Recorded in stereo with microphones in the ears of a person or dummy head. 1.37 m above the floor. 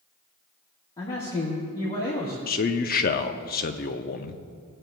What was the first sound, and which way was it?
A man speaking, 20° left (ahead or behind).